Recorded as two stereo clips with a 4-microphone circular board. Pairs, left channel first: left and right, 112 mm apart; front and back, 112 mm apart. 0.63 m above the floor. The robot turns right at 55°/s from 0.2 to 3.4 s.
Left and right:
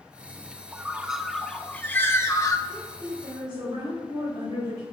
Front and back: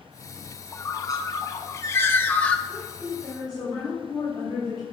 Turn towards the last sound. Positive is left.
turn(degrees=-45)